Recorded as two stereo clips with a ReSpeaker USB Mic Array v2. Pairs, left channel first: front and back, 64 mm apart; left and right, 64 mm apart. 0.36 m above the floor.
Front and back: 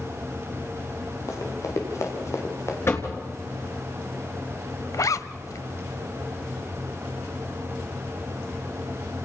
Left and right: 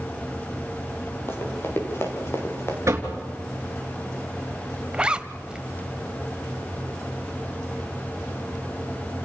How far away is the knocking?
About 3 m.